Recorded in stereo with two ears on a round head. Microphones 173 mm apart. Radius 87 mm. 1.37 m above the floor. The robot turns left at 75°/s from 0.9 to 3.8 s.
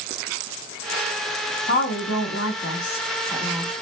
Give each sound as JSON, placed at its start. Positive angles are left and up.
{"t": 1.7, "sound": "a woman speaking", "azimuth_deg": 125, "distance_m": 1.2}